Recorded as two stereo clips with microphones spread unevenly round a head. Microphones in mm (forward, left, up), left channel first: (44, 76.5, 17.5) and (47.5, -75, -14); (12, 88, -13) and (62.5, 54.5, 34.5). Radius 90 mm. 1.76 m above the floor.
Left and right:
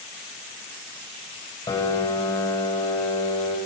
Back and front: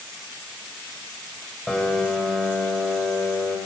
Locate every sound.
1.7 s a piano: 45° left, 2.5 m